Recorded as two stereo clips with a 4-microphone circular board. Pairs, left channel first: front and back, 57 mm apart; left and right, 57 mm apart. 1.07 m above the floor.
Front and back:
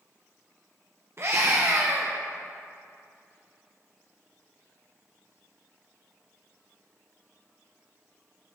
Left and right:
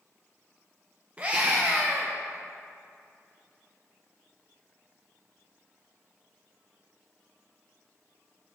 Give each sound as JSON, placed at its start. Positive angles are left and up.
{"t": 1.2, "sound": "a scream", "azimuth_deg": -150, "distance_m": 0.7}